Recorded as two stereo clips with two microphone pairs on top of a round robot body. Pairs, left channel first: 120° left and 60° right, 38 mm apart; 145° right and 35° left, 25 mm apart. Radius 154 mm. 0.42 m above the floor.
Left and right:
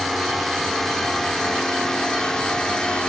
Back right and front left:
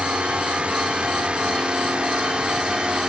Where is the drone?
30° left; by 3.1 s 55° left.